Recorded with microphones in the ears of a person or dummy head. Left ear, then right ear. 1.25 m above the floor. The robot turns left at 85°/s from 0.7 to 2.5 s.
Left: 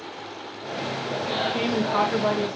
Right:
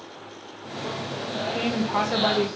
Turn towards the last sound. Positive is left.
turn(degrees=-55)